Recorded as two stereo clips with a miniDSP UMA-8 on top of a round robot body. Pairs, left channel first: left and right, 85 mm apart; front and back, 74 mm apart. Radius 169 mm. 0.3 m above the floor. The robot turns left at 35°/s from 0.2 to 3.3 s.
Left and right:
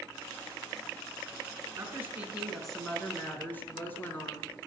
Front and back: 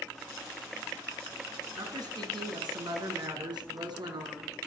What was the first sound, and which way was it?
A woman speaking, 150° right.